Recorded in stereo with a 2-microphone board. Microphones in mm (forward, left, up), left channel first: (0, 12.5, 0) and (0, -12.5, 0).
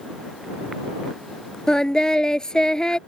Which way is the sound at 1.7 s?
30° left (ahead or behind).